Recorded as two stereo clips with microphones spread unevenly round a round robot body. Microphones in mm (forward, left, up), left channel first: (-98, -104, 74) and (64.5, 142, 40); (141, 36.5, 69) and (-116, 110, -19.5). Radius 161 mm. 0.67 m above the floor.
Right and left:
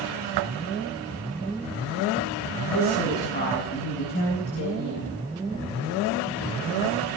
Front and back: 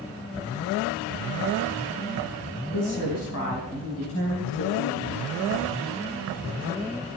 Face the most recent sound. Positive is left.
turn(degrees=-80)